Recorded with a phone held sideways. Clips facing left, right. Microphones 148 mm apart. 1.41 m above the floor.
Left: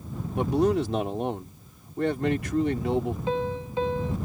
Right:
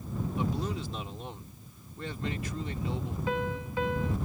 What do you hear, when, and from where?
0.4 s a man speaking: 70° left (ahead or behind)
3.3 s a piano: 25° left (ahead or behind)